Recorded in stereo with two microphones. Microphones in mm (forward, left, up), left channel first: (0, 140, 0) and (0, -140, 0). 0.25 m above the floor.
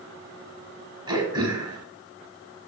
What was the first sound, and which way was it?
Throat clearing, 15° right (ahead or behind).